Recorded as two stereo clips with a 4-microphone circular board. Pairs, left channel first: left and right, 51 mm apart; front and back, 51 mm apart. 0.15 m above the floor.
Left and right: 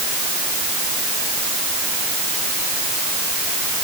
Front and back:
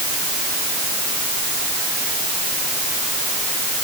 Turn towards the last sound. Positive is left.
No sound to turn to.